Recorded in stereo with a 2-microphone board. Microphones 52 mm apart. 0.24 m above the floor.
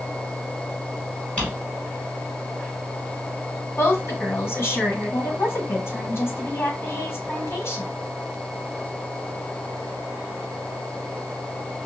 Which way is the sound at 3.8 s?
50° left (ahead or behind).